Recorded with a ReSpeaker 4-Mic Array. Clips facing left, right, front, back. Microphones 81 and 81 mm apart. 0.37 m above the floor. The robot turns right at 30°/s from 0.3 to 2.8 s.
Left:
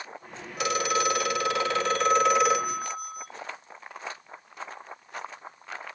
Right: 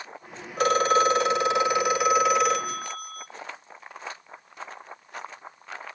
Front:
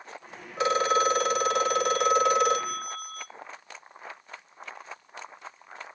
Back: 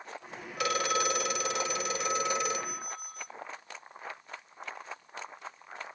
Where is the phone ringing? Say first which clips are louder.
Right 6 dB, front 7 dB; 55° right, 0.9 m; by 3.3 s 10° left, 0.9 m.